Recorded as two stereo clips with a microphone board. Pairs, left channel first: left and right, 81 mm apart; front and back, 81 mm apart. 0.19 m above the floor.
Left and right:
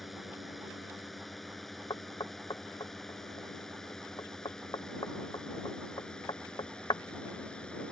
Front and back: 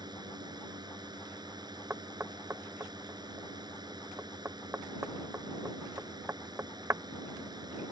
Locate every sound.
0.0 s a drone: straight behind; by 7.9 s 165° left
1.9 s knocking: 125° left